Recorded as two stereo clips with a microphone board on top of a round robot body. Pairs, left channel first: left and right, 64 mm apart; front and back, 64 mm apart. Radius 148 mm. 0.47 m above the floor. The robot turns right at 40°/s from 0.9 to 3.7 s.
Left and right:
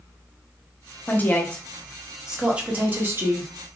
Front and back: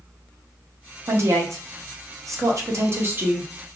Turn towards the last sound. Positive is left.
turn(degrees=-115)